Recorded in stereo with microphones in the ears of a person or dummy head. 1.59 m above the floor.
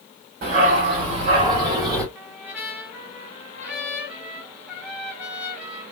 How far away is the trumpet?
About 1.8 m.